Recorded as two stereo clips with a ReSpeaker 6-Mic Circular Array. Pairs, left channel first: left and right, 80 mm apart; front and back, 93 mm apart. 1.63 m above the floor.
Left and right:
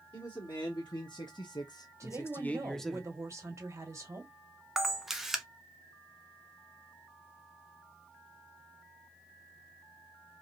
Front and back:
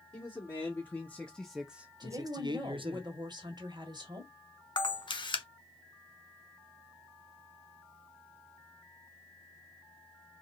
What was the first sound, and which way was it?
A man speaking, 60° left.